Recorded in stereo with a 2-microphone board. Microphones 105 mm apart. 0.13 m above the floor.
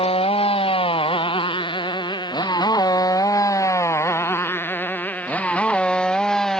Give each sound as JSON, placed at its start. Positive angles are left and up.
{"t": 0.0, "sound": "a motorcycle", "side_deg": 65}